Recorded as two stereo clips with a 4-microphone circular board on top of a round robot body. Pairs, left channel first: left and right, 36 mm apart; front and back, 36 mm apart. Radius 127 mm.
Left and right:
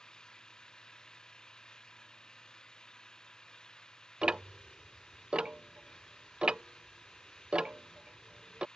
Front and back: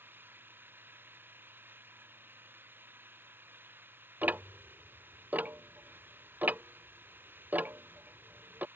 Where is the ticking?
150° right.